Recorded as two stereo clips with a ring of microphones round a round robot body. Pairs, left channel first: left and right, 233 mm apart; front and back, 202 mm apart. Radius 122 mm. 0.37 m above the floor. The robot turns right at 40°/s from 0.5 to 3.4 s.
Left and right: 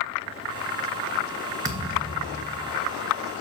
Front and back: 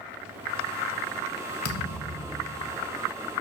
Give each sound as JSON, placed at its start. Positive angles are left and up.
{"t": 1.6, "sound": "a thud", "azimuth_deg": -15, "distance_m": 1.3}